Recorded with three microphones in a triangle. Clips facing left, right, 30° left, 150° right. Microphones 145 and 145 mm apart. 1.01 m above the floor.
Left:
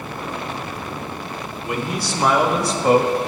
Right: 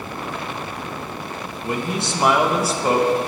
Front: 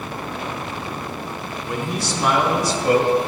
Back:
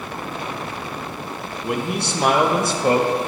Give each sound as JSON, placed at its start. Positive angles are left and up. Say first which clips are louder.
{"t": 1.6, "sound": "a man speaking", "louder": "right 1 dB, back 2 dB", "azimuth_deg": -145, "distance_m": 1.1}